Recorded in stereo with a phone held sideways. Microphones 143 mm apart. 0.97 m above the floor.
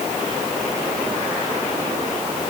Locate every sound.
Only background noise.